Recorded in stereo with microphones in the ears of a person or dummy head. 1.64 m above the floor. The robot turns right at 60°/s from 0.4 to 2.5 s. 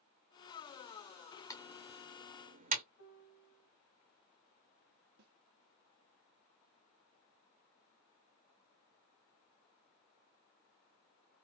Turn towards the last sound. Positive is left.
turn(degrees=-60)  # may be behind; listen again after turning